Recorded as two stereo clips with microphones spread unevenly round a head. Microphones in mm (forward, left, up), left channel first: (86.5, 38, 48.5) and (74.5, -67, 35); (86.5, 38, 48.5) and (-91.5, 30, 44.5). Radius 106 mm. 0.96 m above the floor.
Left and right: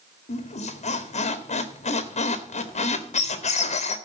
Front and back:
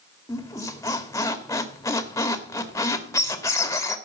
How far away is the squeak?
About 2.0 m.